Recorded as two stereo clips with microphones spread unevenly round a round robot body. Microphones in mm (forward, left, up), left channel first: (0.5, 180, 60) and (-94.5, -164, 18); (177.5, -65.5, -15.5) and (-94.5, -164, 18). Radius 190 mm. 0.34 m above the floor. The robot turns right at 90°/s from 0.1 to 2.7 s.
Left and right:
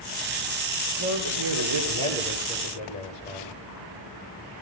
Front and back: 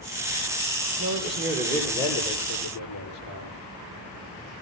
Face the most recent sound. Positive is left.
turn(degrees=0)